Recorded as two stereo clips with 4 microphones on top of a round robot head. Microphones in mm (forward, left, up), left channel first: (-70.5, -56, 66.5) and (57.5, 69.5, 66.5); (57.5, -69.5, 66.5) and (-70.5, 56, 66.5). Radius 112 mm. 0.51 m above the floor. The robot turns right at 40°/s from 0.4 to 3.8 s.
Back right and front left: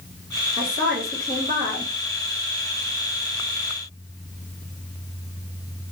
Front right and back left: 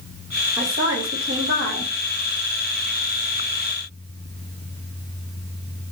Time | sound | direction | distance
0.6 | a woman speaking | 75° left | 2.5 m